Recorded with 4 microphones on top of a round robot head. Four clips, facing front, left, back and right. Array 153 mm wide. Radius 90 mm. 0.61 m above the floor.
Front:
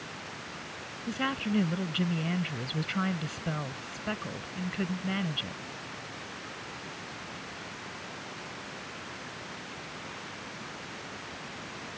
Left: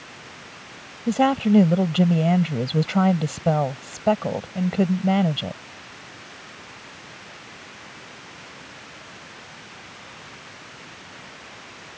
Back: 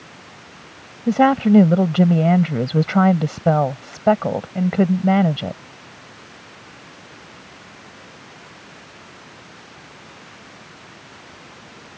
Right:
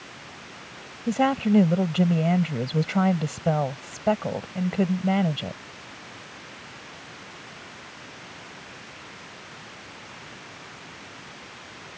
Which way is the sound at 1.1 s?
170° left.